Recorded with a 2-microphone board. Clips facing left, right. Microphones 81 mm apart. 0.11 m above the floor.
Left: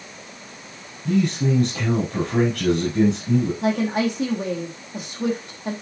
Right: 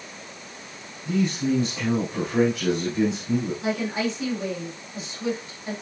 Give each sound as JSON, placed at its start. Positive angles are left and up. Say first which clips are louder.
{"t": 1.1, "sound": "a man speaking", "louder": "left 3 dB", "side_deg": 65, "distance_m": 4.5}
{"t": 3.6, "sound": "a woman speaking", "louder": "left 5 dB", "side_deg": 60, "distance_m": 4.5}